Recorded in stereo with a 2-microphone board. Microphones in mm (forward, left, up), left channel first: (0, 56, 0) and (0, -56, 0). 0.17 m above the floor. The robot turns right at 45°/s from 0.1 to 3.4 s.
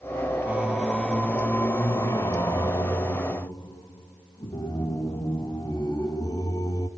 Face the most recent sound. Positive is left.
turn(degrees=110)